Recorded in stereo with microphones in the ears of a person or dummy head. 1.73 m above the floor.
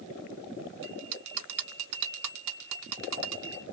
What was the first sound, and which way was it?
A bell, 70° right (ahead or behind).